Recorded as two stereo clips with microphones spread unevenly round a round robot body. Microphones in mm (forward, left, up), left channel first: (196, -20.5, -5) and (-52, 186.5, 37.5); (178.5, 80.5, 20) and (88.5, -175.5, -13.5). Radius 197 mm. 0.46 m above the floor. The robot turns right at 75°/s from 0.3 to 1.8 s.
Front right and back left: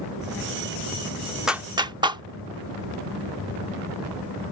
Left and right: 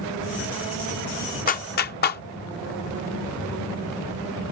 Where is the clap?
35° left; by 2.2 s 60° left.